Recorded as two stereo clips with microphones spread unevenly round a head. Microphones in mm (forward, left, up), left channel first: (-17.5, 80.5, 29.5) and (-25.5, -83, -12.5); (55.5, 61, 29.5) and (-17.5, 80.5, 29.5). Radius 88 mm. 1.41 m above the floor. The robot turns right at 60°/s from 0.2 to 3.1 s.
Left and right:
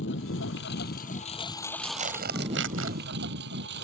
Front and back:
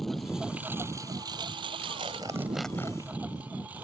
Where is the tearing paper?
150° right; by 3.0 s 85° right.